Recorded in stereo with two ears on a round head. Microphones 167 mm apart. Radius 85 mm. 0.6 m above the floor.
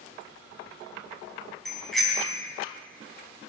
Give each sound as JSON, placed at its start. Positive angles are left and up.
{"t": 1.6, "sound": "a bicycle bell", "side_deg": 0, "distance_m": 3.5}